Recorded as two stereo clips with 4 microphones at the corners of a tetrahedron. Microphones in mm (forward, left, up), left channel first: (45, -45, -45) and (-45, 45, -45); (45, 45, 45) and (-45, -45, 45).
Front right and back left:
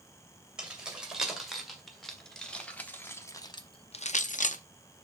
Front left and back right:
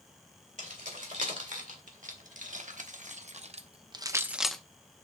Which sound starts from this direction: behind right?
Keys jangling, at 0.6 s.